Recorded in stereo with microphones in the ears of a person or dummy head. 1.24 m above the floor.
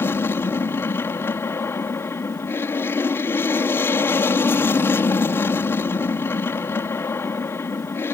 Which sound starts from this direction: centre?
An aircraft, at 0.0 s.